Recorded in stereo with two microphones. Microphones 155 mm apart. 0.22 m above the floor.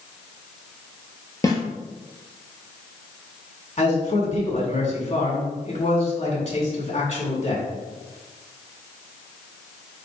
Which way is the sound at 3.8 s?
45° left (ahead or behind).